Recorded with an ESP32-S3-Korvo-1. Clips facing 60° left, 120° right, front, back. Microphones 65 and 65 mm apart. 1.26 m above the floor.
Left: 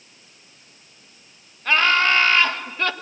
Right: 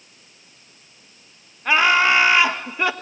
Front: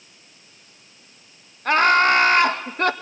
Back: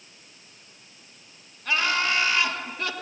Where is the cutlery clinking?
No cutlery clinking in this recording.